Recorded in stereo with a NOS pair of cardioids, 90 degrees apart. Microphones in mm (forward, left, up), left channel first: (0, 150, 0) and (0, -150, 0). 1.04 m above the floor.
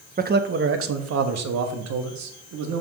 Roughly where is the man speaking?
Ahead right.